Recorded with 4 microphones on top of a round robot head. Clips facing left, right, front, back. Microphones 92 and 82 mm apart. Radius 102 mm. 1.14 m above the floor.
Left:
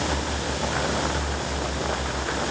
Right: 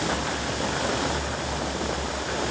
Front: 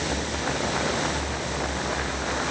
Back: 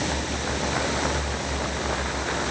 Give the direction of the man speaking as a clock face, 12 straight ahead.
I don't hear a man speaking.